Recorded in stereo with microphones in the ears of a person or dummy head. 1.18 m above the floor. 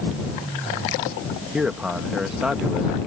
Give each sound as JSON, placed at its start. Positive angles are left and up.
{"t": 1.5, "sound": "a man speaking", "side_deg": -5}